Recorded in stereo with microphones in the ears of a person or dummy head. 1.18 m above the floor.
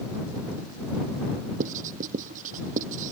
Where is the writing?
45° right (ahead or behind).